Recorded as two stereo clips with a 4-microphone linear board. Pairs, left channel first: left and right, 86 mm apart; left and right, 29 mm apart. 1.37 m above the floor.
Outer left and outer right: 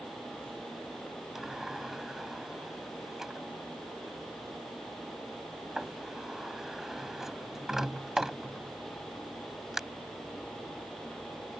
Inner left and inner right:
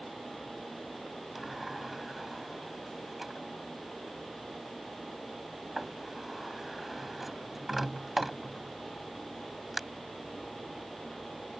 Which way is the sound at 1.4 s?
5° right (ahead or behind).